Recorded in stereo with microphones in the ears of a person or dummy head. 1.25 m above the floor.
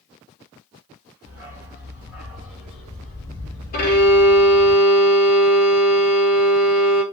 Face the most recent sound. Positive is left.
turn(degrees=50)  # may be behind; listen again after turning